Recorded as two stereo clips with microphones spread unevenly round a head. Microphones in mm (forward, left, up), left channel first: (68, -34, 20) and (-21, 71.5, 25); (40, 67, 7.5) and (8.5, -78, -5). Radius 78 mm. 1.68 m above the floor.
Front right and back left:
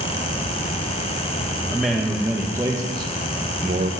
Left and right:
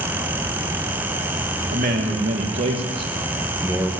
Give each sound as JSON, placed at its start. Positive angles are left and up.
{"t": 1.7, "sound": "a man speaking", "azimuth_deg": -140, "distance_m": 1.9}